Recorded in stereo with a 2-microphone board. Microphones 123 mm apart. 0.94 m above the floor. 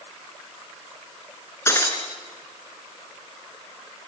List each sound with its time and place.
1.7 s breaking glass: 20° left (ahead or behind), 3 m